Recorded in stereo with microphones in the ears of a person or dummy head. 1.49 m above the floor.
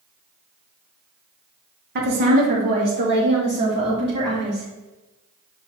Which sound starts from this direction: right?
A woman speaking, at 1.9 s.